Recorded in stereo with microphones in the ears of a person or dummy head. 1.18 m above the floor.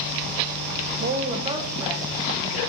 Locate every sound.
1.0 s a woman speaking: 45° right (ahead or behind), 0.5 m; by 2.6 s 10° right (ahead or behind), 2.5 m